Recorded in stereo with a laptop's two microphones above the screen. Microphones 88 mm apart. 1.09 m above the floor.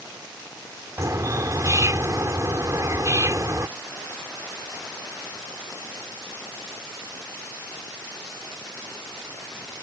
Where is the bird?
40° right (ahead or behind).